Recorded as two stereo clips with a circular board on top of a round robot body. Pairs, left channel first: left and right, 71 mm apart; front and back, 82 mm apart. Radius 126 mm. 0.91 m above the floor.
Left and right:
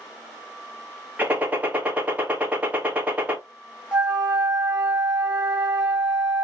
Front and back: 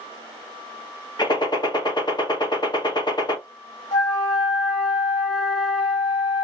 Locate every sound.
1.2 s a gunshot: 25° right, 1.6 m
3.9 s a flute: 15° right, 1.3 m